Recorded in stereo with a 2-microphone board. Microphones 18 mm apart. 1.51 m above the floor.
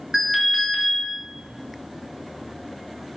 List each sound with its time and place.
0.1 s an alarm: 20° right (ahead or behind), 2.5 m